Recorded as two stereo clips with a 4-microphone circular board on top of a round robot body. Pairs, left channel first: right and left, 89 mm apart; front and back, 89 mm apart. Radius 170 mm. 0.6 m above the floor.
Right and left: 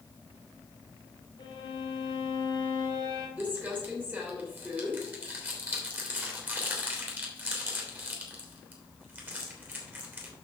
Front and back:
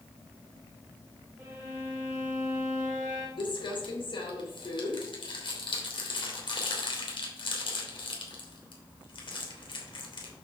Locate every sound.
1.4 s a violin: 120° right, 2.5 m
3.4 s crumpling: 20° left, 2.5 m